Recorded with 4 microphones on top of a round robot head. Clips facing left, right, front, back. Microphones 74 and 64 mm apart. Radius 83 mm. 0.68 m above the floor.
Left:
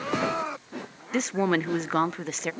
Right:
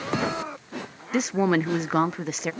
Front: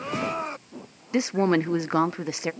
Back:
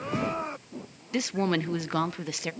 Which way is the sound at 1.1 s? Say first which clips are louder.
Right 2 dB, front 5 dB; 10° right.